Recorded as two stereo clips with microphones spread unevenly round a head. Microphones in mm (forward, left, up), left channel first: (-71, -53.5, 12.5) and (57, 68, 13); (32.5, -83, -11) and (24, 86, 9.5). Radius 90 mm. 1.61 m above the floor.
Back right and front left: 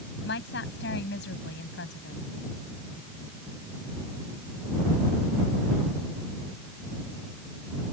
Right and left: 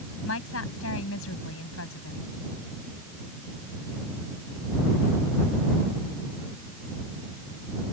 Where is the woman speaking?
105° right.